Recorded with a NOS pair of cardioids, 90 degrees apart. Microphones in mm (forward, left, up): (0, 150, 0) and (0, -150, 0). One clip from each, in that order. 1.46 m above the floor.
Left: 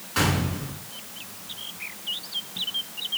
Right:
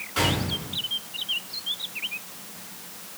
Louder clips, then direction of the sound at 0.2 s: Even; 30° left.